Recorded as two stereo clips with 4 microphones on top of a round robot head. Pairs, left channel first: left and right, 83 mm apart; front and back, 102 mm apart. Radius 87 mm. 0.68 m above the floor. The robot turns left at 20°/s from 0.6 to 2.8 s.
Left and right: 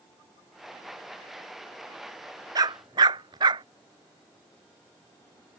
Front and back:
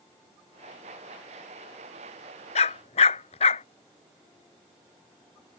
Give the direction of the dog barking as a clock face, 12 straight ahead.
1 o'clock.